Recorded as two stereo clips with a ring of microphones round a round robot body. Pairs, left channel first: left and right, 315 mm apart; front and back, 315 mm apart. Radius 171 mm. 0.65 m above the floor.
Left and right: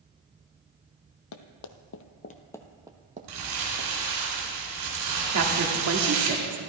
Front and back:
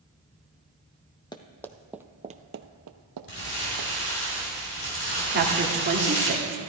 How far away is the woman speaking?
About 1.7 m.